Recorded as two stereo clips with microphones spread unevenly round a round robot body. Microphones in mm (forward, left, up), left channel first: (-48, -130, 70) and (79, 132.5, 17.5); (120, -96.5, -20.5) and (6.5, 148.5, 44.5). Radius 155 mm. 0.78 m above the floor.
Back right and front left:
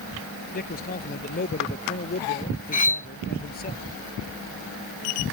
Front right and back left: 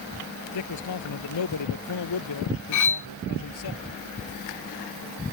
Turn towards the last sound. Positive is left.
turn(degrees=-50)